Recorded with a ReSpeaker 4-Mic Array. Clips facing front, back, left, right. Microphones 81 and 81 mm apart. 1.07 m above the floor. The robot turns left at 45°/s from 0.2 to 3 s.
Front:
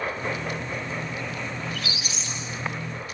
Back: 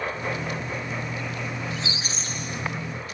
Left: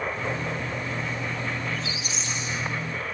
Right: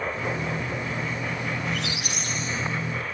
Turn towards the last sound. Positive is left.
turn(degrees=-165)